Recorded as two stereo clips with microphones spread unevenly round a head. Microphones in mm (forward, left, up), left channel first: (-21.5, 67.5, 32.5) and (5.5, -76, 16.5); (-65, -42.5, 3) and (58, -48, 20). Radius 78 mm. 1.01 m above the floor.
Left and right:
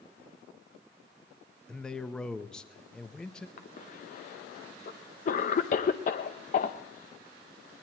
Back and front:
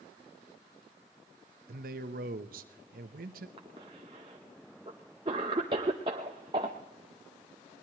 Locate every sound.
1.7 s a man speaking: 15° left, 0.8 m
3.6 s a cough: 60° left, 0.7 m